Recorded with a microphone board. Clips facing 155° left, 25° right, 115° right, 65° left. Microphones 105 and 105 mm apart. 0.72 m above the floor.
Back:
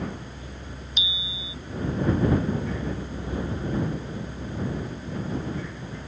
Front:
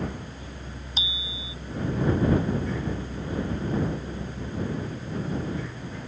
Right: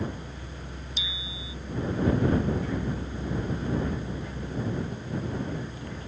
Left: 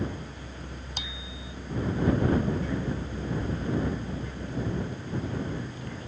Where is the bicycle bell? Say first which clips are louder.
Even, even; 35° left.